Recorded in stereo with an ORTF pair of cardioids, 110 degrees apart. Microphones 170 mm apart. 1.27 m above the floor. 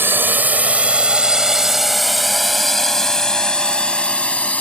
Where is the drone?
10° right; by 4.6 s 10° left.